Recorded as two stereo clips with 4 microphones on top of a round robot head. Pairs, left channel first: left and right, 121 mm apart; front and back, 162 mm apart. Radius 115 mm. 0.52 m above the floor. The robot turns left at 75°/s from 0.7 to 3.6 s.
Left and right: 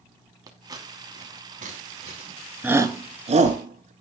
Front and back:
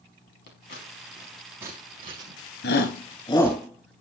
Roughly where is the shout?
Ahead.